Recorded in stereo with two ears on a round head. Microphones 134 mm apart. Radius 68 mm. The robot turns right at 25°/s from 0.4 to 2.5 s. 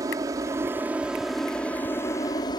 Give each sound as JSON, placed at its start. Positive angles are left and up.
{"t": 0.0, "sound": "an aircraft", "side_deg": -20}